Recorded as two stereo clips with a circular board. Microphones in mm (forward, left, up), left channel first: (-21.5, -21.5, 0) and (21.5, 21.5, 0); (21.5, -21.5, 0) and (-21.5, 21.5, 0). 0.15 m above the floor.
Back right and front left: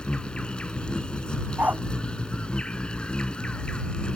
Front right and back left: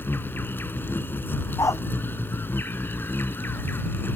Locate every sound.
0.0 s an insect: 70° right
1.6 s a dog barking: 15° right